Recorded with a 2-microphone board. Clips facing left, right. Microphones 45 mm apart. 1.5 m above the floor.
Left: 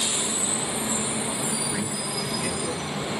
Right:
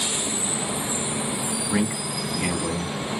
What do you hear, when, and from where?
1.7 s a man speaking: 65° right (ahead or behind), 3 m